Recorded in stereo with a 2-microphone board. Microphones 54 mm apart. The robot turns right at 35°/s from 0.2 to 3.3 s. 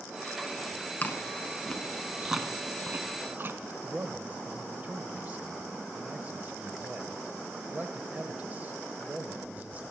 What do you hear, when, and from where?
1.0 s chewing: 35° left (ahead or behind), 0.8 m; by 3.7 s 45° right (ahead or behind), 0.8 m
3.8 s a man speaking: 30° right (ahead or behind), 1.1 m